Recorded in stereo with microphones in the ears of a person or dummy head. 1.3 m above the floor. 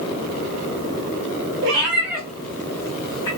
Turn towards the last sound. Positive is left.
turn(degrees=20)  # may be behind; listen again after turning